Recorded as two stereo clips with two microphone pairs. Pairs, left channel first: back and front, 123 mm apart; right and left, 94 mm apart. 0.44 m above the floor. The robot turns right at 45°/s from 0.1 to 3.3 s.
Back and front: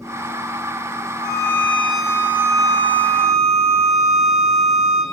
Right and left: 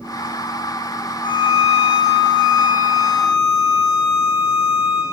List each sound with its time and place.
1.2 s a violin: 130° right, 5 m; by 5.0 s 35° right, 5 m